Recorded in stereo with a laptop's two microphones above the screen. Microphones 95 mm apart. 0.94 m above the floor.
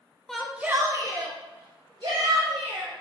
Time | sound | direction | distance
0.3 | a shout | 5° left (ahead or behind) | 0.6 m